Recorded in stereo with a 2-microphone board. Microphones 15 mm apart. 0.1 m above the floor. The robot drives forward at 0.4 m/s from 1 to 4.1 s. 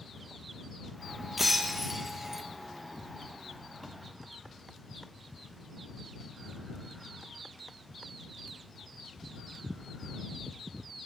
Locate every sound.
1.4 s breaking glass: 15° right (ahead or behind), 0.9 m; by 2.4 s 25° right (ahead or behind), 0.6 m